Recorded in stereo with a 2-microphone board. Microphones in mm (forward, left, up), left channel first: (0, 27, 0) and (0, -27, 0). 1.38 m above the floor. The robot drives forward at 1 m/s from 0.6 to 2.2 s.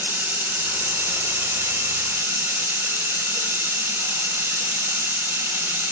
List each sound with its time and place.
0.0 s running water: 50° right (ahead or behind), 2 m; by 5.9 s 55° right (ahead or behind), 2 m